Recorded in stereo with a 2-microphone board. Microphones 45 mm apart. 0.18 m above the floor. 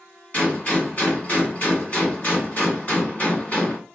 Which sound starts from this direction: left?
A gunshot, at 0.3 s.